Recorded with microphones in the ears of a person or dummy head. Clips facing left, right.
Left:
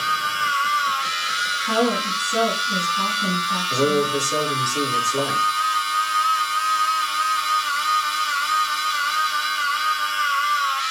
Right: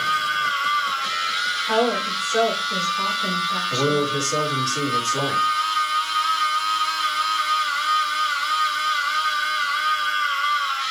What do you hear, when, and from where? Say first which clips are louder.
0.0 s a machine running: even; 55° left (ahead or behind), 1.3 m
1.6 s a woman speaking: even; 50° left (ahead or behind), 3 m
3.7 s a man speaking: left 2 dB; 35° left (ahead or behind), 4 m